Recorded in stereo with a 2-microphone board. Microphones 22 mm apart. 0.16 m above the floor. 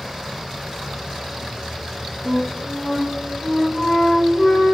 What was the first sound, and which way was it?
A flute, 25° left (ahead or behind).